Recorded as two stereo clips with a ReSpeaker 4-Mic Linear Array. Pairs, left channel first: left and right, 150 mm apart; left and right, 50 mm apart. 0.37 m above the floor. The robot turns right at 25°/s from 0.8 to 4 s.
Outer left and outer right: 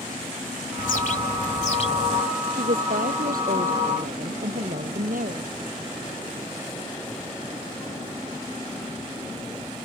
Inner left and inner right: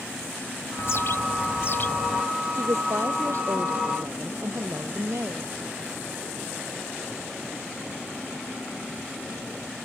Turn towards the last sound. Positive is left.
turn(degrees=-70)